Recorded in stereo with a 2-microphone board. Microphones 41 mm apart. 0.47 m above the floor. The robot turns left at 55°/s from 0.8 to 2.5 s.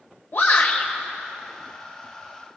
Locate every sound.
0.3 s a shout: 55° left (ahead or behind), 1.9 m; by 0.9 s 60° left (ahead or behind), 1.9 m